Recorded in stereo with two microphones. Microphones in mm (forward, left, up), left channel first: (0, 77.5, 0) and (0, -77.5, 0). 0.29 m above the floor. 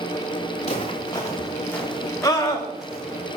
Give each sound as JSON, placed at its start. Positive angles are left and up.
{"t": 0.6, "sound": "footsteps", "side_deg": 40, "distance_m": 2.0}
{"t": 2.2, "sound": "a scream", "side_deg": 20, "distance_m": 1.3}